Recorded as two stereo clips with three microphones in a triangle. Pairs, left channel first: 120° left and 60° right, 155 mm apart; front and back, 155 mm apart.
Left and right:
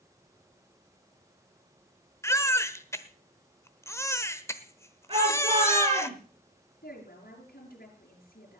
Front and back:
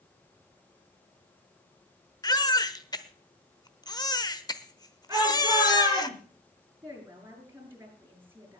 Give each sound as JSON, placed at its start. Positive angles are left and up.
{"t": 2.2, "sound": "a baby crying", "azimuth_deg": 55, "distance_m": 1.0}
{"t": 5.1, "sound": "a shout", "azimuth_deg": -110, "distance_m": 8.0}
{"t": 6.8, "sound": "a woman speaking", "azimuth_deg": 105, "distance_m": 6.0}